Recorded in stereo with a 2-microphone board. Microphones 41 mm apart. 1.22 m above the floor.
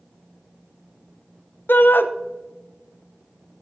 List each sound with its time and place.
1.7 s a shout: 55° left (ahead or behind), 0.7 m